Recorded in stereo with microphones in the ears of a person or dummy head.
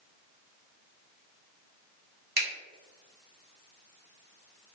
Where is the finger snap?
65° right (ahead or behind), 1.8 m.